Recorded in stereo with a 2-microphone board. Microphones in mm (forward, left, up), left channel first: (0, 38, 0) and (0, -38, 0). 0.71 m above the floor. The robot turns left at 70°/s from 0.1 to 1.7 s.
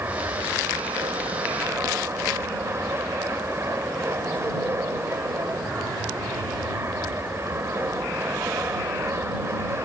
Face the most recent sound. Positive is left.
turn(degrees=-145)